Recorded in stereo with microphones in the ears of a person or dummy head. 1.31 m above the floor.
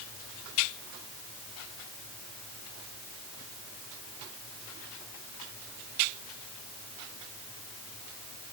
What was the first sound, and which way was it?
Only background noise.